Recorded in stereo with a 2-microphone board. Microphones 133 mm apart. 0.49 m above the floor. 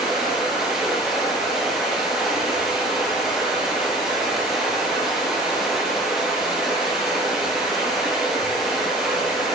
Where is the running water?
Centre (ahead or behind), 5 m.